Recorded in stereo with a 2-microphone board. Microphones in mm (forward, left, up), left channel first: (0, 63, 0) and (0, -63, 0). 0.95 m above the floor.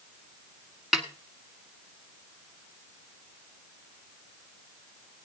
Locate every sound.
0.9 s a snare drum: 5° right (ahead or behind), 1.3 m